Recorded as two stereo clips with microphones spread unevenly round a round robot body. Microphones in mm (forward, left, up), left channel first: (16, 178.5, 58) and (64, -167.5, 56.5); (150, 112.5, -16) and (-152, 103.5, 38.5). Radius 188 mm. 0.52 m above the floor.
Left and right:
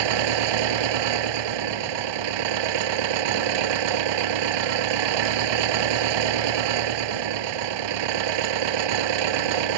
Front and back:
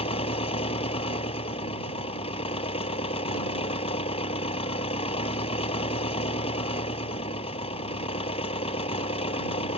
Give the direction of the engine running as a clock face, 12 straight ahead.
3 o'clock.